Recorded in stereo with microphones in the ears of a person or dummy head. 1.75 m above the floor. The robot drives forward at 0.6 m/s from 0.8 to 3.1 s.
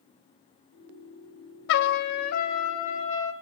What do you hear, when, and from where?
1.7 s a trumpet: 65° left (ahead or behind), 0.7 m; by 3.3 s 35° left (ahead or behind), 1.2 m